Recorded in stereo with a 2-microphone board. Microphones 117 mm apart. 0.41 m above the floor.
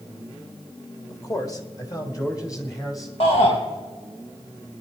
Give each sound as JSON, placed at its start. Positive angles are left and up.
{"t": 1.1, "sound": "a man speaking", "side_deg": 30, "distance_m": 1.2}
{"t": 3.2, "sound": "a shout", "side_deg": 60, "distance_m": 1.9}